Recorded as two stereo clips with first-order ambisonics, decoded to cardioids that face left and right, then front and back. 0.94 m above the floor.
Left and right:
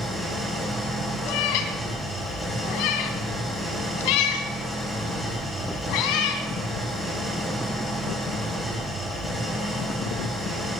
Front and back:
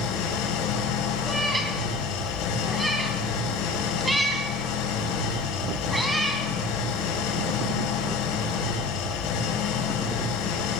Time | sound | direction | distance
0.0 | an engine running | 5° left | 4.5 m
1.2 | a cat meowing | 95° left | 3.5 m